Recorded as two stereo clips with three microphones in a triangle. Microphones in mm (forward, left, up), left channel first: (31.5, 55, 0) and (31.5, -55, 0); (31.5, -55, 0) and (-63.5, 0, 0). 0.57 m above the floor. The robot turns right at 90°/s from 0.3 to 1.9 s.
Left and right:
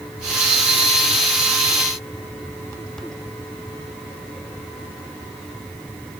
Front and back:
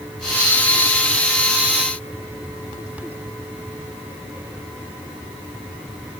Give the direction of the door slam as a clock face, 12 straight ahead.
No door slam in this recording.